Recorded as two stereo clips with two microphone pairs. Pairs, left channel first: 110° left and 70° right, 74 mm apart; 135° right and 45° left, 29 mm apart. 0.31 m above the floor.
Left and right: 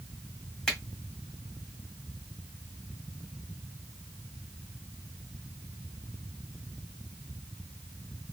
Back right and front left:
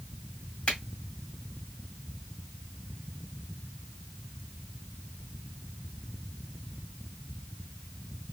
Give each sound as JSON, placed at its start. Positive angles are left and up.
{"t": 0.7, "sound": "a finger snap", "azimuth_deg": -170, "distance_m": 1.8}